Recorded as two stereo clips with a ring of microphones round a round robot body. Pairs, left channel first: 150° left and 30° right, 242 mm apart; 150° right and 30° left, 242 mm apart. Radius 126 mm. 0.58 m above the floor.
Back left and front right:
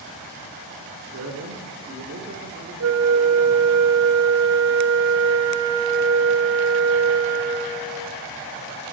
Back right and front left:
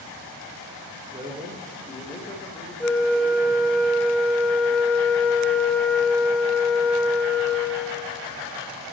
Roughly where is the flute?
Ahead right.